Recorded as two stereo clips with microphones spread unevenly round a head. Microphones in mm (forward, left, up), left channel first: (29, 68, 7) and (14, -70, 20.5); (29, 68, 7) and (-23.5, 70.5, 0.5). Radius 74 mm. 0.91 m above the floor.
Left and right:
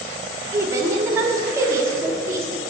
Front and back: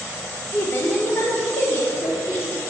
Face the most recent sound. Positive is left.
turn(degrees=-30)